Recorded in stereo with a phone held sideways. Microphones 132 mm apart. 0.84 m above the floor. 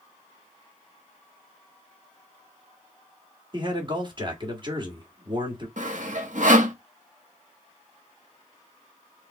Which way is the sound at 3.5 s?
35° right (ahead or behind).